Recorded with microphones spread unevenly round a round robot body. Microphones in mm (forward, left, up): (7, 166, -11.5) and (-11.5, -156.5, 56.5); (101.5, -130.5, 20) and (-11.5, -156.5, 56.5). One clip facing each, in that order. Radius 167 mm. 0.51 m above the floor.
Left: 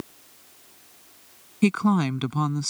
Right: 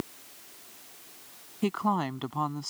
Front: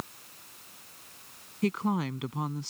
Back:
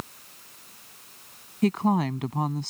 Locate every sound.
1.6 s a woman speaking: 125° left